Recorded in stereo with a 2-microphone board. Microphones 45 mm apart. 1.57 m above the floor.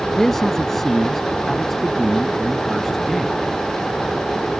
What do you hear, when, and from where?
0.2 s a man speaking: 10° left (ahead or behind); by 3.4 s 5° left (ahead or behind)